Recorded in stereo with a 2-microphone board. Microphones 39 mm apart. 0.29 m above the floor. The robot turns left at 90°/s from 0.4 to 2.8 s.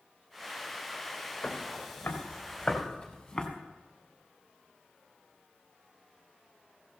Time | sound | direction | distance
1.4 | footsteps | 55° left (ahead or behind) | 4.5 m